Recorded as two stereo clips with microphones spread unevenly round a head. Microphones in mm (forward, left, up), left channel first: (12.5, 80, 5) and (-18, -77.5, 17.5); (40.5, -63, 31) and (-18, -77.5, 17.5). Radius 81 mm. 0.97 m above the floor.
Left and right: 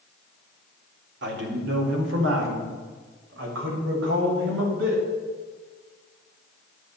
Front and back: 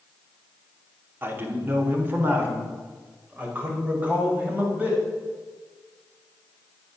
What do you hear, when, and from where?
1.2 s a man speaking: 120° right, 3 m; by 5.0 s 105° right, 7 m